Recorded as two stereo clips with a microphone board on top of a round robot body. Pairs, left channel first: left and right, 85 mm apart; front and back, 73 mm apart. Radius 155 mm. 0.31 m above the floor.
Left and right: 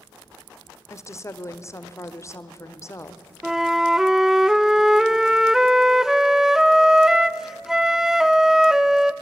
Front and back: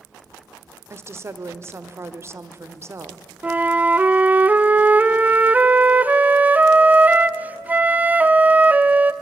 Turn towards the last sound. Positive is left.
turn(degrees=-165)